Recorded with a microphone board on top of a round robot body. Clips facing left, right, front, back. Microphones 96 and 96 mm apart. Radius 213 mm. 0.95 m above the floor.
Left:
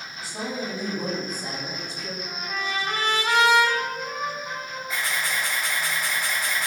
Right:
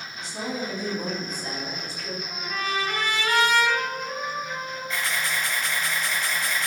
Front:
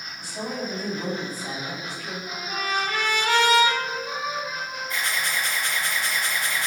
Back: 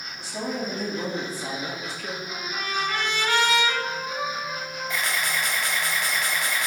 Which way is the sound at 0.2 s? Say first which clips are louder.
Even, back 1 dB; 175° left.